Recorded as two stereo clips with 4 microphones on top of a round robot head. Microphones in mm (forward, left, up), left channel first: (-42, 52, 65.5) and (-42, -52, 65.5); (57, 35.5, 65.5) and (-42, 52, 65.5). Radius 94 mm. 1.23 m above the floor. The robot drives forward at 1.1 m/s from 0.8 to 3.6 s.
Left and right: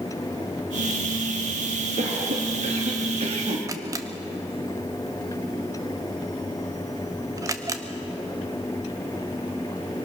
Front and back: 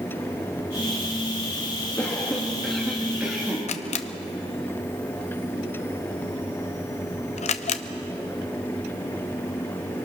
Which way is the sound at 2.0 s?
85° right.